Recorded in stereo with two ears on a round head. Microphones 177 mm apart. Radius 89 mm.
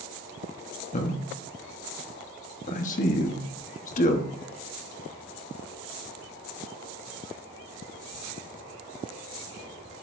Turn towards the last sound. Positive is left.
turn(degrees=40)  # may be behind; listen again after turning